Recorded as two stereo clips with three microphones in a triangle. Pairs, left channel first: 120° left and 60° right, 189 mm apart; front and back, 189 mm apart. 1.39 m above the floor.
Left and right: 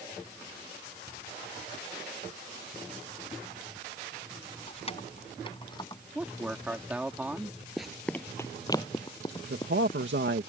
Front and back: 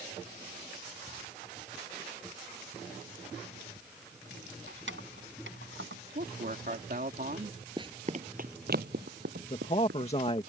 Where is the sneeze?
I don't hear a sneeze.